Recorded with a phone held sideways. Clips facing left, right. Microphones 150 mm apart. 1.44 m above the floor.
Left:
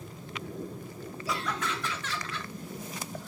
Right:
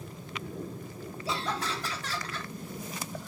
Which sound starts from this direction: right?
Laughter, at 1.3 s.